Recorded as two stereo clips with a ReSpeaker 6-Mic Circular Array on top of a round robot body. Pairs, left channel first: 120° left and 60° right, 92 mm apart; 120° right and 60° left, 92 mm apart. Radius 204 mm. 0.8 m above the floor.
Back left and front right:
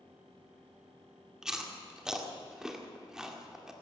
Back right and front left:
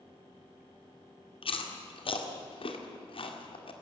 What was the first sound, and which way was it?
Chewing, 145° right.